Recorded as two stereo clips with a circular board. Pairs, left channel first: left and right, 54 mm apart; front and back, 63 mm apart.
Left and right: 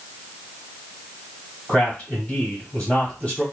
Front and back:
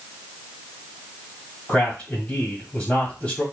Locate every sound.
1.7 s a man speaking: 35° left, 1.3 m